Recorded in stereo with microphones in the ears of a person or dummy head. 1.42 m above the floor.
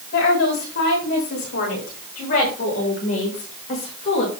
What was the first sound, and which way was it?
A woman speaking, 55° left (ahead or behind).